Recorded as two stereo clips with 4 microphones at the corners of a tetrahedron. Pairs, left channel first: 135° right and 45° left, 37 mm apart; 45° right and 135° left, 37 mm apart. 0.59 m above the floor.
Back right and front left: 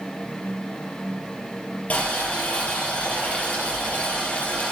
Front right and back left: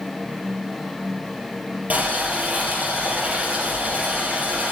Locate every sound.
1.9 s boiling: 175° left, 4 m